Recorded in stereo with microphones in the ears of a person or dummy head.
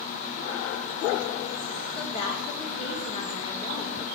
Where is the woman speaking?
35° left (ahead or behind), 1.9 m.